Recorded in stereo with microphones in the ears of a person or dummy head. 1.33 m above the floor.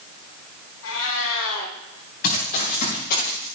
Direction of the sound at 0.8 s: 75° left (ahead or behind).